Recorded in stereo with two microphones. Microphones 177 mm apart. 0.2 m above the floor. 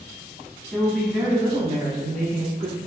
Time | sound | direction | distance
0.7 | a woman speaking | 5° left (ahead or behind) | 1.3 m